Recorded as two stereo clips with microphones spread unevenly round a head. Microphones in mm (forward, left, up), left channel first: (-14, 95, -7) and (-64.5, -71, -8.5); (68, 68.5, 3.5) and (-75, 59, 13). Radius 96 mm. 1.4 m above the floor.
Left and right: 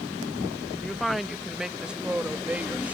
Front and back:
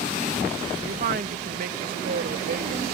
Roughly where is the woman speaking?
Behind.